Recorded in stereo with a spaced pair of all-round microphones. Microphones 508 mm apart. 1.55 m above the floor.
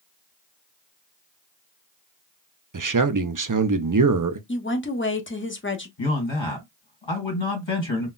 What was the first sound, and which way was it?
A man speaking, 40° right (ahead or behind).